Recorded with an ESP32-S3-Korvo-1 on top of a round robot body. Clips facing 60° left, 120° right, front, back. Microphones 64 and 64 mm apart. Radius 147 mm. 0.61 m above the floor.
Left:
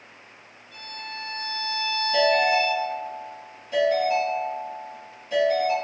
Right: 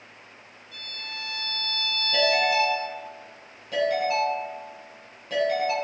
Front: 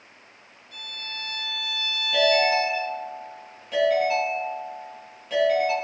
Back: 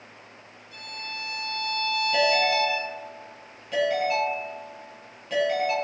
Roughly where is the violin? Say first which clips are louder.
Left 3 dB, back 1 dB; ahead right.